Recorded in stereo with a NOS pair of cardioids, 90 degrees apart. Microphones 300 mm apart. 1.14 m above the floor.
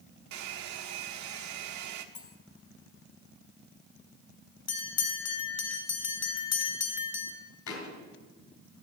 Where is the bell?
55° left, 2 m.